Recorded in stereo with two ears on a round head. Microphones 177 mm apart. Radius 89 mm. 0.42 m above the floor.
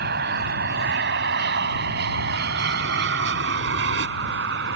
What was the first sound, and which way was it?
An aircraft, 50° right (ahead or behind).